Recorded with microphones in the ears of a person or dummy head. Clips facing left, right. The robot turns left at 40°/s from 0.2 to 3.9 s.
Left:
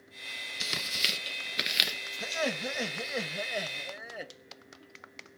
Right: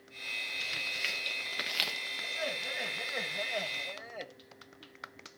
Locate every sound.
0.6 s tearing paper: 65° left (ahead or behind), 0.9 m; by 2.0 s 10° left (ahead or behind), 0.9 m
2.2 s laughter: 80° left, 1.2 m; by 4.3 s 10° left, 1.2 m